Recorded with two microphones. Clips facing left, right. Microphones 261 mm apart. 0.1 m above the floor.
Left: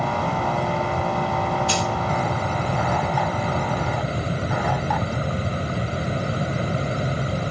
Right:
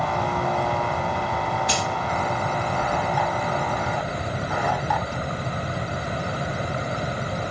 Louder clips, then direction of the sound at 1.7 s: Left 2 dB; 15° right (ahead or behind).